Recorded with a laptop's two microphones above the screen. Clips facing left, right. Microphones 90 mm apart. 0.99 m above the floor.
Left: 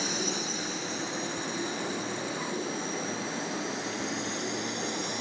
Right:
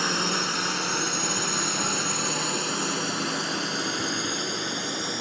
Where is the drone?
65° right (ahead or behind); by 5.2 s 60° right (ahead or behind).